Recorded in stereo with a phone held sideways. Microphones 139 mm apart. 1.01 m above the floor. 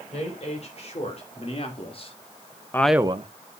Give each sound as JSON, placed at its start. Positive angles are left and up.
{"t": 0.1, "sound": "a woman speaking", "side_deg": 50, "distance_m": 4.5}